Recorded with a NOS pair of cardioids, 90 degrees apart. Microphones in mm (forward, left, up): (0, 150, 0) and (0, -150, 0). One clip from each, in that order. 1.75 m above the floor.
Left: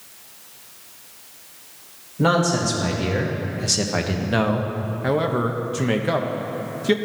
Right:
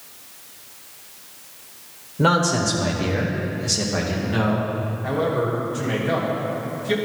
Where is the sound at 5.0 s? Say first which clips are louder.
Left 1 dB; 60° left, 0.9 m.